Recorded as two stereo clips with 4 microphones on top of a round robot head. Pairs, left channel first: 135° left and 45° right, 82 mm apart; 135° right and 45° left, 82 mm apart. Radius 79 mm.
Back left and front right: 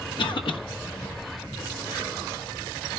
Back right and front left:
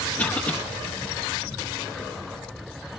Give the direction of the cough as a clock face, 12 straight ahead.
7 o'clock.